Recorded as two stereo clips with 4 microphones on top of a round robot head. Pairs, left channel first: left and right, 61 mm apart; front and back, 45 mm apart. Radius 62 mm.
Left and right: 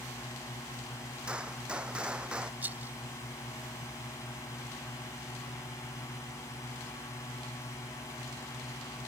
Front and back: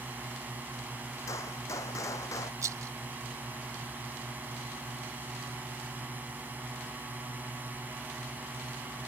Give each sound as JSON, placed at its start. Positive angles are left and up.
{"t": 0.0, "sound": "a drone", "azimuth_deg": 130}
{"t": 1.3, "sound": "a gunshot", "azimuth_deg": -15}
{"t": 2.6, "sound": "a rattle", "azimuth_deg": -160}